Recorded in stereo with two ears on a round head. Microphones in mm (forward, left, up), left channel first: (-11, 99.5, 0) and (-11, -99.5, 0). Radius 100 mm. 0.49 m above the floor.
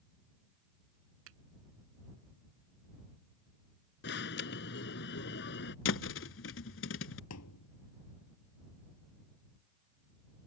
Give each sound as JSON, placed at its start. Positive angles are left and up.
{"t": 1.3, "sound": "a finger snap", "side_deg": -65}
{"t": 4.0, "sound": "an alarm", "side_deg": 55}
{"t": 5.8, "sound": "a thud", "side_deg": 60}
{"t": 7.3, "sound": "a thud", "side_deg": 90}